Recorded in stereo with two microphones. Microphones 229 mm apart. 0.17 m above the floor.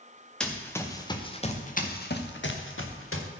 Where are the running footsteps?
5° left (ahead or behind), 2 m; by 3.3 s 80° left, 2 m.